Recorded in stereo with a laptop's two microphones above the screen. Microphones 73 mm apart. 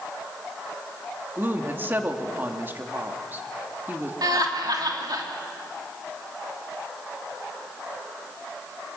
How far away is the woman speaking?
About 2 m.